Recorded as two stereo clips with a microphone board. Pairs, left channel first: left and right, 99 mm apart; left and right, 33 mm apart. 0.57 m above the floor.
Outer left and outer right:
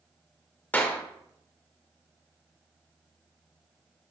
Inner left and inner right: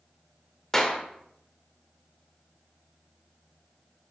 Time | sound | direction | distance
0.7 | a clap | 15° left (ahead or behind) | 1.7 m